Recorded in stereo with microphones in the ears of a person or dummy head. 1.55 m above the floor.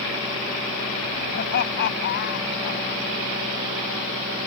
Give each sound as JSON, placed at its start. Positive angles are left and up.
{"t": 1.3, "sound": "laughter", "side_deg": 50}